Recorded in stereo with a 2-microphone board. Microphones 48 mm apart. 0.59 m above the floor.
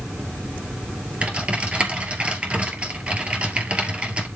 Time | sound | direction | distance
1.2 | typing on a keyboard | 25° right (ahead or behind) | 2 m